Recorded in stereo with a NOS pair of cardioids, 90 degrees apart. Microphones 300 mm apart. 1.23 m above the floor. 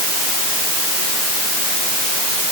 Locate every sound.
Only background noise.